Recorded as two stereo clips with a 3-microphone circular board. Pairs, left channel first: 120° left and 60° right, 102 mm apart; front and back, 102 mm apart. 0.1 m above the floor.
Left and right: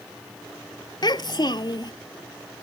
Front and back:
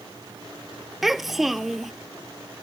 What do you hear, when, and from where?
1.0 s a child speaking: 90° left